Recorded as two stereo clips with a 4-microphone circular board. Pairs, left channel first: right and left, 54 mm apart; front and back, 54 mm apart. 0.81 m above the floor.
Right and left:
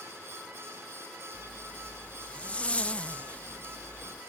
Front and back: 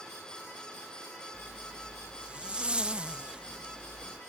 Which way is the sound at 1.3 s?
130° right.